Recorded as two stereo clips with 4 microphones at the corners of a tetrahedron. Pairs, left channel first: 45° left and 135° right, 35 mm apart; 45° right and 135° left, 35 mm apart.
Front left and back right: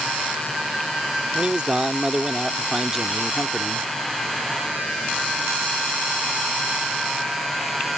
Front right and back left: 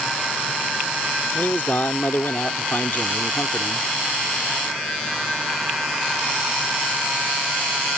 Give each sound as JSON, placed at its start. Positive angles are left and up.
{"t": 1.4, "sound": "a man speaking", "azimuth_deg": -75}